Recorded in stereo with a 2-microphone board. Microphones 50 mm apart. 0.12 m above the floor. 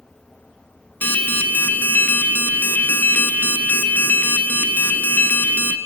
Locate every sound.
1.0 s an alarm: 35° left (ahead or behind), 1.6 m